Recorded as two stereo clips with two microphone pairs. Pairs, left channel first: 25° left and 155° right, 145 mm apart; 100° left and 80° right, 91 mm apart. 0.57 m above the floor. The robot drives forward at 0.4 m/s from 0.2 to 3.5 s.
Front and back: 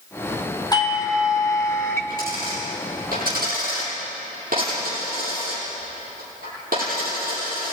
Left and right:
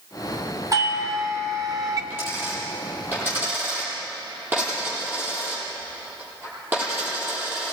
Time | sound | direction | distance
0.7 | a doorbell | 35° right | 2.5 m
2.1 | a dropped coin | 145° right | 9.5 m